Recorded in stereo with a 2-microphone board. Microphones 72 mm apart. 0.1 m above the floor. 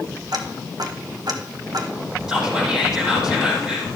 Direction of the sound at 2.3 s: 10° right (ahead or behind).